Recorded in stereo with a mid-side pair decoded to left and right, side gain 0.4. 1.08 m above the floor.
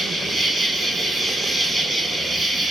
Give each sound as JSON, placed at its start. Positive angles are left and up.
{"t": 0.0, "sound": "an insect", "azimuth_deg": -20, "distance_m": 1.9}